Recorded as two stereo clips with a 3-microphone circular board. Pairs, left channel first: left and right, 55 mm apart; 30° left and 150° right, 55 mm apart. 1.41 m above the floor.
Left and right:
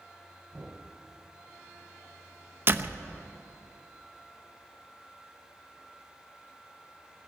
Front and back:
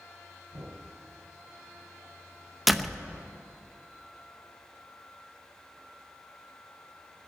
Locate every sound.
0.5 s knocking: 165° right, 7.5 m
2.7 s a door slam: 65° right, 0.8 m